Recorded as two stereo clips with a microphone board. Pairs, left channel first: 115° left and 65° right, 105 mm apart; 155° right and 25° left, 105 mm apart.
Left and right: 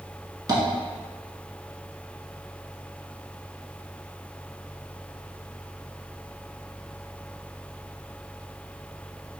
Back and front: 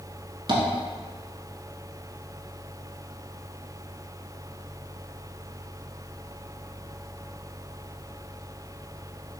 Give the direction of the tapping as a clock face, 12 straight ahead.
1 o'clock.